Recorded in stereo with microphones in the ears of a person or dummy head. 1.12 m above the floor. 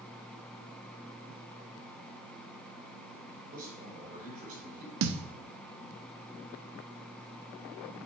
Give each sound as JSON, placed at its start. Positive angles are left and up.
{"t": 3.5, "sound": "a man speaking", "side_deg": -50, "distance_m": 3.5}
{"t": 5.0, "sound": "a thud", "side_deg": -60, "distance_m": 0.7}